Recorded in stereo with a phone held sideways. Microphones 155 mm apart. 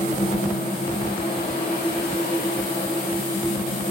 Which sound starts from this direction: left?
A fan, at 0.0 s.